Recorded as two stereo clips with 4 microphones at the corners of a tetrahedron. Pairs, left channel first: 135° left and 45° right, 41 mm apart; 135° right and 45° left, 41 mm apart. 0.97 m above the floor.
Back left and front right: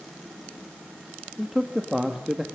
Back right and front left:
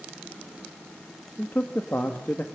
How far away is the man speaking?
About 1.5 m.